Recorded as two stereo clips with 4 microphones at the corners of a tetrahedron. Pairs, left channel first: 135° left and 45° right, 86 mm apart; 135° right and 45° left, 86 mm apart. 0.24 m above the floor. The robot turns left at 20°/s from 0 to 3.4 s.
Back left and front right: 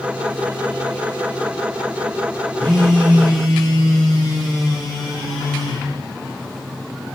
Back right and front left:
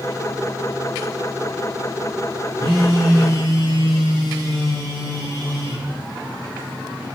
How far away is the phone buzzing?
About 7.5 m.